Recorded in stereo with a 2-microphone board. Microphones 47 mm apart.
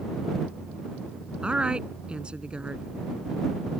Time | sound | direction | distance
1.4 | a woman speaking | 20° right (ahead or behind) | ?